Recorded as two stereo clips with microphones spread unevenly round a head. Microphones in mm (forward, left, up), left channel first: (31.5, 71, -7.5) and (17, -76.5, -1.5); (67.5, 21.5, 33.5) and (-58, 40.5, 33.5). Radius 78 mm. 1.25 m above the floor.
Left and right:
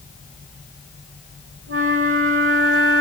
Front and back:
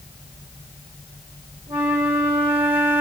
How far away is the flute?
About 3.5 m.